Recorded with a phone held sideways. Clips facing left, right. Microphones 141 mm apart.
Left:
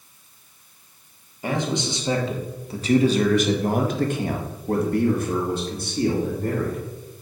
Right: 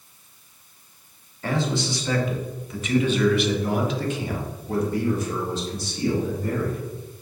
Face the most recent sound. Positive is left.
turn(degrees=55)  # may be behind; listen again after turning